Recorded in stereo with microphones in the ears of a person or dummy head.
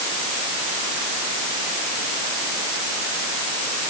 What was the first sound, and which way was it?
Only background noise.